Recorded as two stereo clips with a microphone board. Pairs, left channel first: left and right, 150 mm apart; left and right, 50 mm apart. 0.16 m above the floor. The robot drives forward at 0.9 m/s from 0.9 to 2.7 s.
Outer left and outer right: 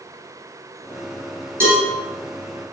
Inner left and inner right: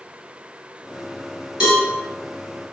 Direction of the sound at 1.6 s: 15° right (ahead or behind).